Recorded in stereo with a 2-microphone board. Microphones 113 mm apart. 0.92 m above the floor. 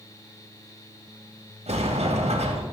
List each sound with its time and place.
1.7 s a sliding door: 70° right (ahead or behind), 2 m